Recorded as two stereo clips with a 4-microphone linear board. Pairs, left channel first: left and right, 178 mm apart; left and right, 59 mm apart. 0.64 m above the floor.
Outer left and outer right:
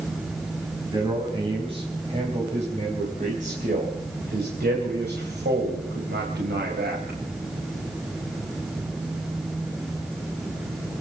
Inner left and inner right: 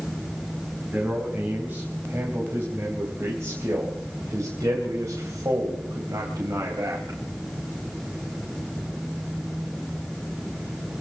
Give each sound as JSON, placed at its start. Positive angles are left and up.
{"t": 0.9, "sound": "a man speaking", "side_deg": -25, "distance_m": 4.0}